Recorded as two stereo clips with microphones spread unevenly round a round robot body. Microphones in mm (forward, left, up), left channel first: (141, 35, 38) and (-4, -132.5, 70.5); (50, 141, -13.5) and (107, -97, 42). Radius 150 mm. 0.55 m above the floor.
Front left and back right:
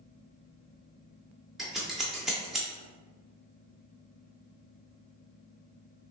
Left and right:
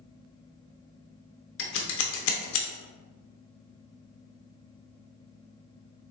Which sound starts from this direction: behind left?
Scissors, at 1.6 s.